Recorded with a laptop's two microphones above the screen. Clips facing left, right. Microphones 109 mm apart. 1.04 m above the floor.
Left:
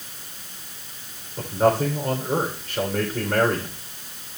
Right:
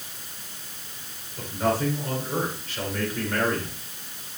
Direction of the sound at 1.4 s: 35° left (ahead or behind).